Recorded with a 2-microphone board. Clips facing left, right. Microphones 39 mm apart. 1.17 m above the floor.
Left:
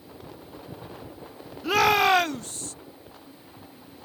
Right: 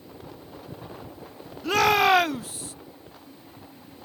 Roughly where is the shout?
Centre.